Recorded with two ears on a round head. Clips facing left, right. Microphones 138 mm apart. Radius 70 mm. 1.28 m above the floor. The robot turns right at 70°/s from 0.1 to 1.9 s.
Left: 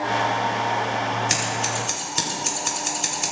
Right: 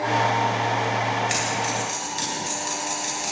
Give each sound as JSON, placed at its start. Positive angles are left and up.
{"t": 1.3, "sound": "scissors", "side_deg": 40, "distance_m": 3.5}